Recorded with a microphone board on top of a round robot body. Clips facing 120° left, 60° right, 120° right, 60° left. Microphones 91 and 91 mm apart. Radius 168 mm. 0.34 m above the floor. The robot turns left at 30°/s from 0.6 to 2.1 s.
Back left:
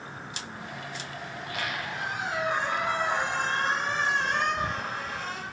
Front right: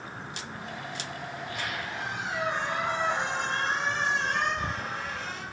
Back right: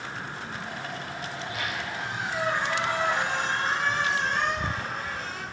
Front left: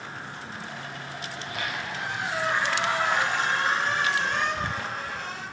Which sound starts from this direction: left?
A squeak, at 1.3 s.